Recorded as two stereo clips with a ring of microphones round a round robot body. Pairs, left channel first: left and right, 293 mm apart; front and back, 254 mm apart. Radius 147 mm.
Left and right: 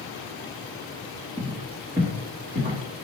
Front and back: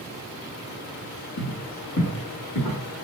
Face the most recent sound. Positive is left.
turn(degrees=-30)